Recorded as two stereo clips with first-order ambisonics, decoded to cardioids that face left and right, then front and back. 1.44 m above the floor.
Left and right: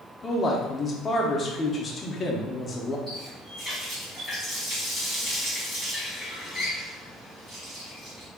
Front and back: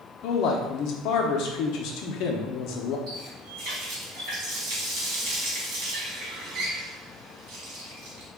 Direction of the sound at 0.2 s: 20° left.